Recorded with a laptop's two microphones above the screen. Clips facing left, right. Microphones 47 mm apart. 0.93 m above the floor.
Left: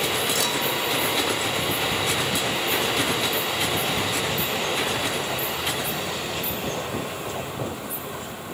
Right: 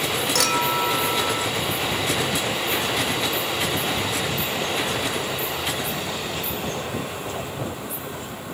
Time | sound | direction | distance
0.3 | a clink | 70° right (ahead or behind) | 3 m